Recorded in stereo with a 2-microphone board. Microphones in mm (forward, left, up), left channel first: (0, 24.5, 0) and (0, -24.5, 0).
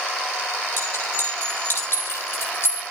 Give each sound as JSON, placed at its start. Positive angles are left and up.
{"t": 0.8, "sound": "a clink", "side_deg": 60, "distance_m": 9.0}